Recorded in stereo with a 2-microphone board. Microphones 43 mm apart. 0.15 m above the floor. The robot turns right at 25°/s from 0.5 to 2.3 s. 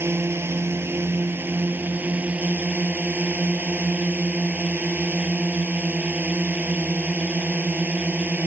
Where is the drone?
85° right; by 8.5 s 40° right.